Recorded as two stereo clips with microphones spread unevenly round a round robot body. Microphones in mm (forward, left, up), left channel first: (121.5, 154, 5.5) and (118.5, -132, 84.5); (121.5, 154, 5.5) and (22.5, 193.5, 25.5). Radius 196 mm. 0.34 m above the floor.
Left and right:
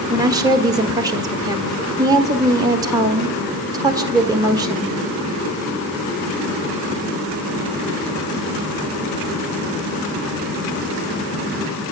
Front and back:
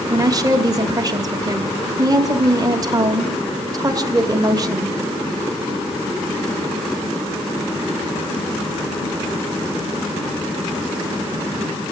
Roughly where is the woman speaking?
Behind.